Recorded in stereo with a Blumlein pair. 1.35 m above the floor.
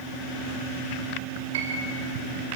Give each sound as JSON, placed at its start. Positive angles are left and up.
{"t": 1.5, "sound": "a piano", "azimuth_deg": -60, "distance_m": 3.5}